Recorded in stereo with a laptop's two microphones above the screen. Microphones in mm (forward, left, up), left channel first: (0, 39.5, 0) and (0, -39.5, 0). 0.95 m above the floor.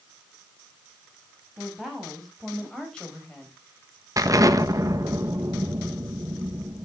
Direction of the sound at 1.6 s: 5° right (ahead or behind).